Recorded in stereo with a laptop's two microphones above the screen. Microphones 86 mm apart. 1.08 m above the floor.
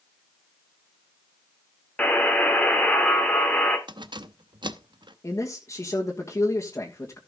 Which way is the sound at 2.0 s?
20° left (ahead or behind).